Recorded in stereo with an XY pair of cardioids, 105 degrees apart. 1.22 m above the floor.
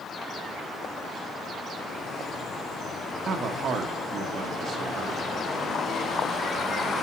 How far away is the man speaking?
About 1.5 m.